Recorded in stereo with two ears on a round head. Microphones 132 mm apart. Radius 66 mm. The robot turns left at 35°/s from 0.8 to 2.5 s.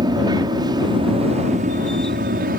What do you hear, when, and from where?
0.0 s an aircraft: 30° right; by 2.6 s 90° right